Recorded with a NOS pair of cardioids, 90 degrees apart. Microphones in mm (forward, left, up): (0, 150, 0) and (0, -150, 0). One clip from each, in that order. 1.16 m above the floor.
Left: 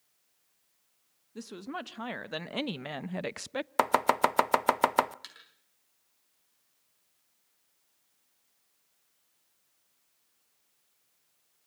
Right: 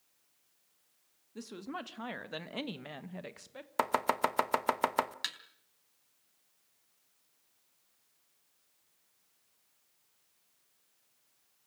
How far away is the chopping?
About 0.7 m.